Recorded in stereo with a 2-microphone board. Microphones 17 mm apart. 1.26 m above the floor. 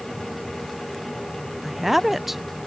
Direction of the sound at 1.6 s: 10° right (ahead or behind).